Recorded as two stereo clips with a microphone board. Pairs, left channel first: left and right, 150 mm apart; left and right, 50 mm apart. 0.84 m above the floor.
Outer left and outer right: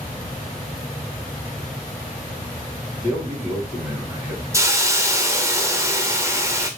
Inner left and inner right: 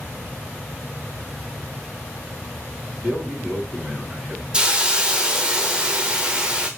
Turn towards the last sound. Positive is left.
turn(degrees=-20)  # may be behind; listen again after turning